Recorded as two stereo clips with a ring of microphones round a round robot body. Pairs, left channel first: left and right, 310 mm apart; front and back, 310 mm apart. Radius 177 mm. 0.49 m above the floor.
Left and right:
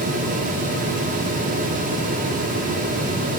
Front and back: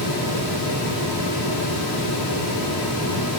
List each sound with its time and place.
Only background noise.